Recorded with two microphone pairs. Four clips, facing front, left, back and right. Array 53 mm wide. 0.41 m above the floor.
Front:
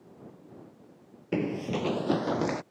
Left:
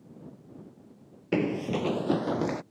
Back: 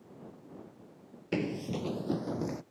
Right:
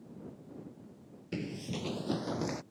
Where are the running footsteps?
90° left; by 2.6 s 15° left.